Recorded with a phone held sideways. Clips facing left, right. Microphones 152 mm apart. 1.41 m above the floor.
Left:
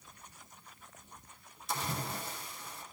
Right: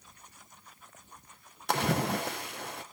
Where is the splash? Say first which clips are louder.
Right 9 dB; 70° right (ahead or behind), 0.8 m.